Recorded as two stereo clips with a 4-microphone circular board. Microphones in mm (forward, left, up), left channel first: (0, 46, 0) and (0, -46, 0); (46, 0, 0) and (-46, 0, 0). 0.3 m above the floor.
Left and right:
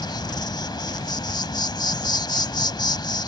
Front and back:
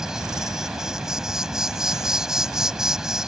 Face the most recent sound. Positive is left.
turn(degrees=95)